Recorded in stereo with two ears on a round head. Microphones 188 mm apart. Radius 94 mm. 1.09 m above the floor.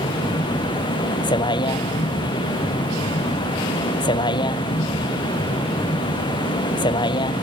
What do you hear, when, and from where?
0.0 s a vehicle: 25° left (ahead or behind)